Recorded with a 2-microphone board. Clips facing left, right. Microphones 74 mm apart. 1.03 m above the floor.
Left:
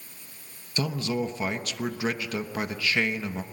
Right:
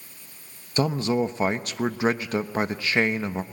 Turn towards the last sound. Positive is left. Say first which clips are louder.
# right 5 dB
turn(degrees=-35)  # may be behind; listen again after turning